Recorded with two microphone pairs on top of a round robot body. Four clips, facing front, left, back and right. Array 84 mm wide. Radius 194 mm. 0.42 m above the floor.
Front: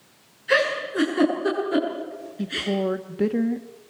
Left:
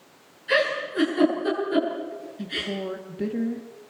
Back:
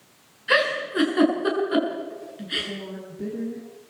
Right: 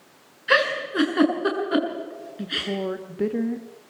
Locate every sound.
0.5 s a giggle: 105° right, 7.5 m
2.4 s a woman speaking: 35° right, 1.7 m